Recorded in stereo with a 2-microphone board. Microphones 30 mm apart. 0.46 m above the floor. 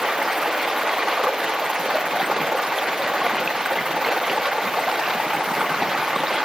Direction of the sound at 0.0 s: 20° right (ahead or behind).